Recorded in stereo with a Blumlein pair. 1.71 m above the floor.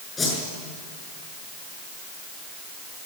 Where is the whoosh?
15° left, 6.5 m.